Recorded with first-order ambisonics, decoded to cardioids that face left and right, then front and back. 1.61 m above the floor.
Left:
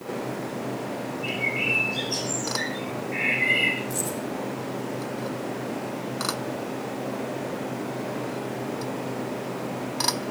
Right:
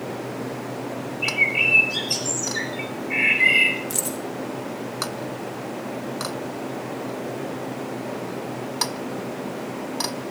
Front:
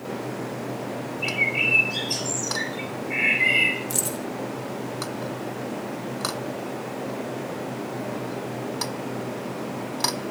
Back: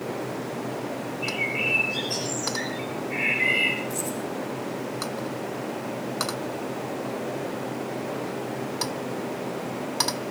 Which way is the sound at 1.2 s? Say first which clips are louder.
Right 7 dB, front 4 dB; 70° right.